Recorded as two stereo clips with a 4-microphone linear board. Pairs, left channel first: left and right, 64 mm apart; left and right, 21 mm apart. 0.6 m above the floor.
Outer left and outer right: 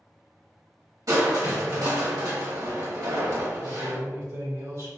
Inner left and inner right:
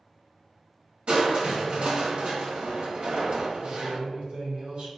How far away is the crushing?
About 1.0 m.